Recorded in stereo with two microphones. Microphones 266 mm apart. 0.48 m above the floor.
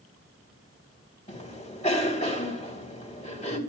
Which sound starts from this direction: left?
A cough, at 1.3 s.